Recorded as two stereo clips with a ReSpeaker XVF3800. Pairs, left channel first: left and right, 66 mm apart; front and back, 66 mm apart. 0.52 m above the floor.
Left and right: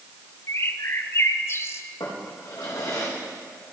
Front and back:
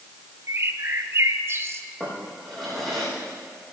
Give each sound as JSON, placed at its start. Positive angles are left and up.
{"t": 0.5, "sound": "a bird", "azimuth_deg": 135, "distance_m": 0.8}
{"t": 2.0, "sound": "a drawer", "azimuth_deg": 90, "distance_m": 7.0}